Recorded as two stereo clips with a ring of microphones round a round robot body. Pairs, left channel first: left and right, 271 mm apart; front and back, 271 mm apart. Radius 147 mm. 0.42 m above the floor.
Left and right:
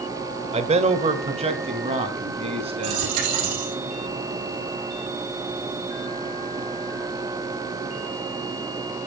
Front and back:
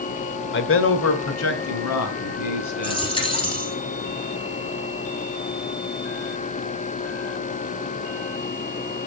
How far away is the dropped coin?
About 3.5 m.